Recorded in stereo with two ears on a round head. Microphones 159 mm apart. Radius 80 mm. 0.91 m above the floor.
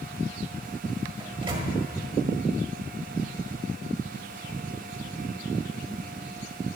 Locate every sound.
1.2 s a microwave: 30° right (ahead or behind), 1.6 m